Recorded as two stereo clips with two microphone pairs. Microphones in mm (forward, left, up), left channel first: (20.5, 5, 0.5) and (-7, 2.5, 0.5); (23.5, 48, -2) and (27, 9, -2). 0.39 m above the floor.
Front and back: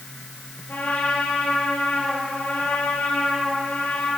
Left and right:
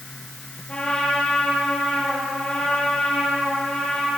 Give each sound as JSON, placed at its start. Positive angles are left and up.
{"t": 0.7, "sound": "a trumpet", "azimuth_deg": 25, "distance_m": 7.0}